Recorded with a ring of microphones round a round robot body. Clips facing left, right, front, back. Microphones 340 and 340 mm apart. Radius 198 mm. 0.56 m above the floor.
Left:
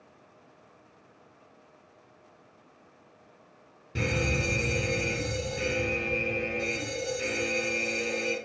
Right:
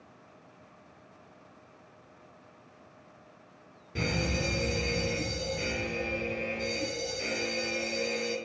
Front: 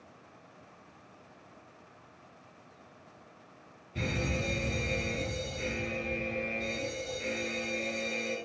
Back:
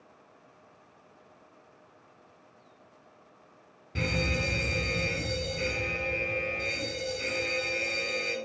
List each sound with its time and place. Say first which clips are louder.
4.0 s a fire alarm: left 2 dB, back 2 dB; 160° left, 4.5 m